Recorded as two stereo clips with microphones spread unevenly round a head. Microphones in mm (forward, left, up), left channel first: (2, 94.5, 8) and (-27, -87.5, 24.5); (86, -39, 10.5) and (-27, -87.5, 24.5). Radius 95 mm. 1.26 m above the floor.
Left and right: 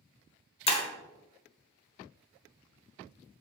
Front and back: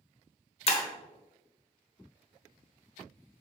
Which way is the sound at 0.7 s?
30° left.